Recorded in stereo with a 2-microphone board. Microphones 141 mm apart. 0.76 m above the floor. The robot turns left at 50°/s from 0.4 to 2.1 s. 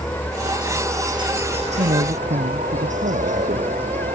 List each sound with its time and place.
0.0 s a helicopter: 5° left; by 4.2 s 80° right
1.8 s a man speaking: 85° right; by 3.8 s 75° right (ahead or behind)